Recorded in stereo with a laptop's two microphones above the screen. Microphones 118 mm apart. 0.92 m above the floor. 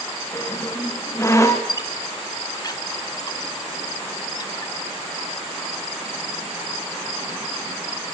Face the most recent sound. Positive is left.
turn(degrees=35)  # may be behind; listen again after turning